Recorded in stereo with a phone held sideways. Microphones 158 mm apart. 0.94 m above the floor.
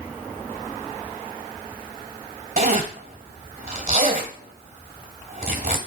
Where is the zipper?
65° right (ahead or behind), 1.4 m.